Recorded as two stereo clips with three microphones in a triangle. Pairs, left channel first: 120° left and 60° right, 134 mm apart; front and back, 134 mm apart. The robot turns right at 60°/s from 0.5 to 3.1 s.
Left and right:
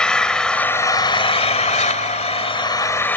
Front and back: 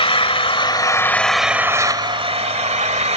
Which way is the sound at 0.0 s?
40° left.